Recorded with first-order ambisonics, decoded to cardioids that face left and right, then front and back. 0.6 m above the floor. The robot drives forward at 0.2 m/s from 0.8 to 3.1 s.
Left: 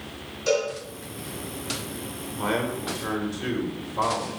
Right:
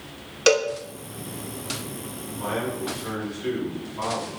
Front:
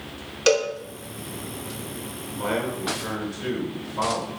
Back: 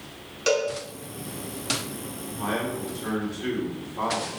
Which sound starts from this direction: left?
A man speaking, at 2.3 s.